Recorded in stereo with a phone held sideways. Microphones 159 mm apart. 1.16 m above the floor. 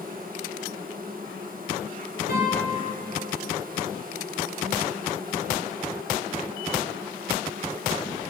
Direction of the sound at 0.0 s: 65° right (ahead or behind).